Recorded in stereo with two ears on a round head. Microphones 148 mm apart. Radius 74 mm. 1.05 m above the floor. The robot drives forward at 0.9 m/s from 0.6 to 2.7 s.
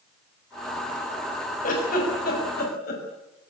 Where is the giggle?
50° left (ahead or behind), 7 m; by 3.0 s 60° left (ahead or behind), 6.5 m.